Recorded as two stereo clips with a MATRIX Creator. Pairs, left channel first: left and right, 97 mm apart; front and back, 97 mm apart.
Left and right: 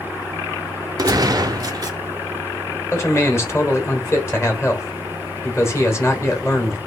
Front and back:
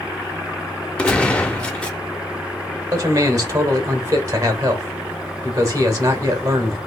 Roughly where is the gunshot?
Right.